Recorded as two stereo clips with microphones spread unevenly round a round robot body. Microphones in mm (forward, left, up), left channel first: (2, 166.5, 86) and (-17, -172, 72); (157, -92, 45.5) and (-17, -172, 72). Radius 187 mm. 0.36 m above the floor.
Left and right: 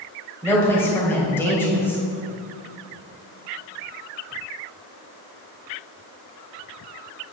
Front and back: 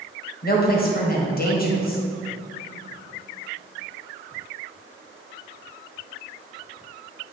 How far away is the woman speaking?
About 1.9 m.